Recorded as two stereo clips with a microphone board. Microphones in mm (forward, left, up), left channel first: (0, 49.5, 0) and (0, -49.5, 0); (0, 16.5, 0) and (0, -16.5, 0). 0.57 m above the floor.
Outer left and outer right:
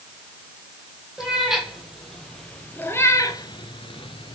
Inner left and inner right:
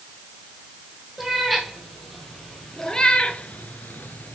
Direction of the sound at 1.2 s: 5° right (ahead or behind).